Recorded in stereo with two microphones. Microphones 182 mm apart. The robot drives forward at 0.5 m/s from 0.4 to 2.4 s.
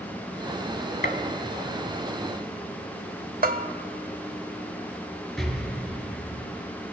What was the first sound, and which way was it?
A gunshot, 55° left (ahead or behind).